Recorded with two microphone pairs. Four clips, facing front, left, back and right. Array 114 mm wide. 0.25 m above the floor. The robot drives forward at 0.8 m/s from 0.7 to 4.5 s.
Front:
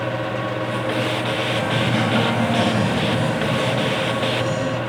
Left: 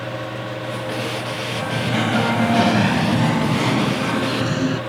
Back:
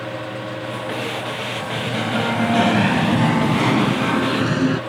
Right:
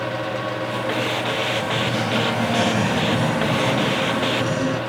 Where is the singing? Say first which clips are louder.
Even, front 4 dB; 35° left; by 4.8 s 170° left.